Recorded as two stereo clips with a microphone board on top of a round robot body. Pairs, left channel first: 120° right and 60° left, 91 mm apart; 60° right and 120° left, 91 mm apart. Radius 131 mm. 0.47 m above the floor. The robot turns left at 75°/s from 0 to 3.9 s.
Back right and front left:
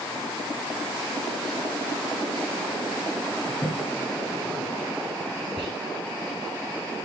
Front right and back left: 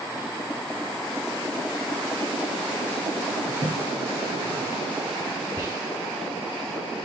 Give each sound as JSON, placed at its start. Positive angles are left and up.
{"t": 3.5, "sound": "a toilet flushing", "azimuth_deg": -175, "distance_m": 1.9}
{"t": 5.6, "sound": "whispering", "azimuth_deg": 70, "distance_m": 7.0}